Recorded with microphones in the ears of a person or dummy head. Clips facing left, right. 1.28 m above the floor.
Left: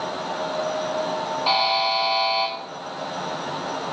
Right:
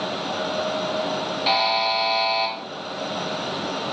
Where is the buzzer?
20° right (ahead or behind), 0.6 m.